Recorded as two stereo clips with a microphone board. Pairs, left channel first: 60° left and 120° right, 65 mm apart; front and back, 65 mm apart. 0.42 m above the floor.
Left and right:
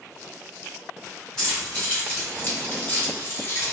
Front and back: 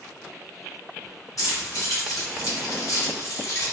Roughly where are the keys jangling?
Ahead.